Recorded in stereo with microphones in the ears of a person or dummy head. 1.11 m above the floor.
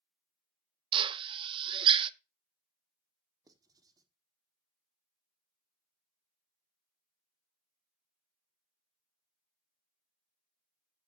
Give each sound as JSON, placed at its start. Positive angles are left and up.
{"t": 0.9, "sound": "a drill", "side_deg": -30, "distance_m": 0.5}
{"t": 3.5, "sound": "writing", "side_deg": -20, "distance_m": 1.3}